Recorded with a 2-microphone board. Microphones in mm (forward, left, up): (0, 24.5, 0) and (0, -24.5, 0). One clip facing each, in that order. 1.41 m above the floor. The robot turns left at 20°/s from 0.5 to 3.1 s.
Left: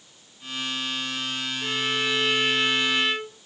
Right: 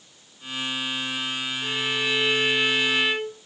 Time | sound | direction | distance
1.6 | a violin | 30° left (ahead or behind) | 1.8 m